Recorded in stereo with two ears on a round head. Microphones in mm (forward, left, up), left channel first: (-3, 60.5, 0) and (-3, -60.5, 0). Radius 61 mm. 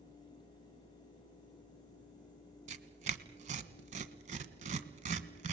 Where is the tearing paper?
55° right (ahead or behind), 1.6 m.